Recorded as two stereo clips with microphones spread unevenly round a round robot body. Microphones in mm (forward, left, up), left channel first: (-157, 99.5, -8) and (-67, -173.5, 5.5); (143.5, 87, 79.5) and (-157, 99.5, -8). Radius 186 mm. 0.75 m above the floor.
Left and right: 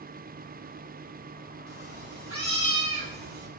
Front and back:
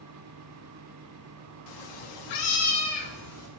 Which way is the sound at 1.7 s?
20° left.